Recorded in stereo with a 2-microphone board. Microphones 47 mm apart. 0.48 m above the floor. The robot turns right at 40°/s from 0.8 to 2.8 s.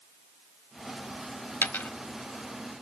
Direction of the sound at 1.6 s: 50° left (ahead or behind).